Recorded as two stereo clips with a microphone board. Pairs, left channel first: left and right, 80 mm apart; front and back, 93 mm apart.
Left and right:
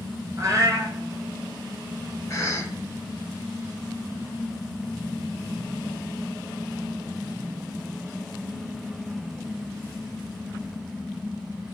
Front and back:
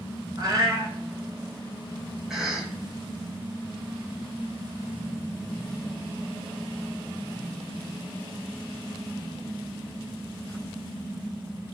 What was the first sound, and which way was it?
A cat meowing, 130° right.